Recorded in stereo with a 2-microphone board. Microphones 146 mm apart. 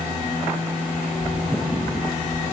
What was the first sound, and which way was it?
A child speaking, 60° right (ahead or behind).